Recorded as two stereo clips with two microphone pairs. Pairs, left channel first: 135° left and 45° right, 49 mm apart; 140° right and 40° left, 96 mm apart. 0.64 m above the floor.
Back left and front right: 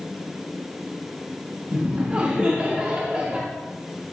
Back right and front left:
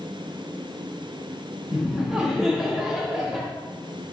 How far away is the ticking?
I don't hear ticking.